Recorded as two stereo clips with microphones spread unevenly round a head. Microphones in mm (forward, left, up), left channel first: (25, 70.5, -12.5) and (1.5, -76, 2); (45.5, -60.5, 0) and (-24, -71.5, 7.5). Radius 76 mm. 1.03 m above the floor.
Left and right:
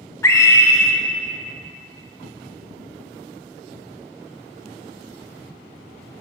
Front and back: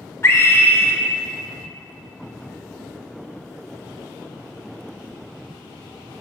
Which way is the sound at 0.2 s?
25° left.